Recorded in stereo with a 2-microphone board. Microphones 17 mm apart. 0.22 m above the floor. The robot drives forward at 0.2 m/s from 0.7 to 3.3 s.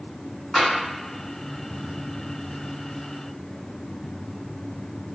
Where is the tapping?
10° left (ahead or behind), 1.5 m.